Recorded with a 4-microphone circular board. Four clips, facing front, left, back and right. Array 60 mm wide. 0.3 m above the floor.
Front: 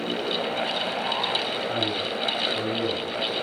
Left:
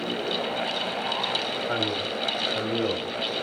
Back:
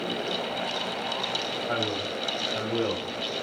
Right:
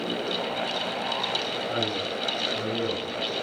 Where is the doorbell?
I don't hear a doorbell.